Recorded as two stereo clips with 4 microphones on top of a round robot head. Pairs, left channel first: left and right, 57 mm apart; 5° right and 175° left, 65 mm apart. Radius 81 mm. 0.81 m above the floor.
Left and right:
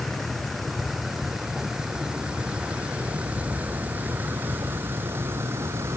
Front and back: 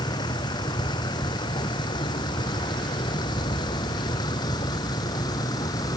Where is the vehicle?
5° left; by 6.0 s 40° right.